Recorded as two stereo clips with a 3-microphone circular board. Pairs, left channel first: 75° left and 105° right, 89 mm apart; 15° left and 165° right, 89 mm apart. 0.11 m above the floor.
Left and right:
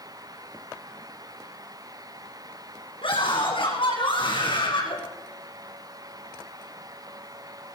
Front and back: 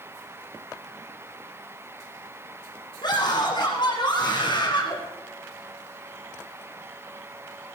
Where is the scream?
55° left, 7.5 m; by 5.0 s 45° left, 6.5 m.